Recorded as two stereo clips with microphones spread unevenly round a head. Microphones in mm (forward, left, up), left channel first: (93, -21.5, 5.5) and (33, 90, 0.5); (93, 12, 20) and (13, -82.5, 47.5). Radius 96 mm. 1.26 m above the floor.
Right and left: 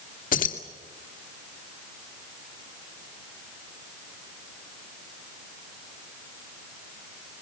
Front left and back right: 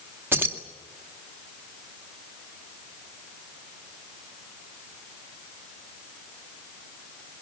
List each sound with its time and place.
0.3 s keys jangling: 55° right, 2 m